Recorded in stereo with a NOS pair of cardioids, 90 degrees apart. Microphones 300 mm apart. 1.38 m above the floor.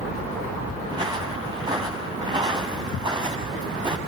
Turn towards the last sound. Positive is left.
turn(degrees=-15)